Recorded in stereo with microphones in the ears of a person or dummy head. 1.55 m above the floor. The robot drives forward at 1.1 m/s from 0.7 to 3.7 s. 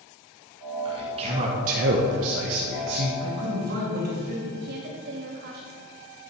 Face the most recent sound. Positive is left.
turn(degrees=-55)  # may be behind; listen again after turning